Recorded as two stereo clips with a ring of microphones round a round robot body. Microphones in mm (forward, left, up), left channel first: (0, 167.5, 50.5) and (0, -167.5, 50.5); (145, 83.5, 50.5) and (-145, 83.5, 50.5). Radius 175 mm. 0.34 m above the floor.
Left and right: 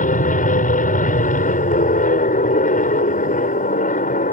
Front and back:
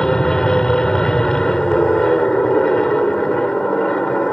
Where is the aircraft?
85° left.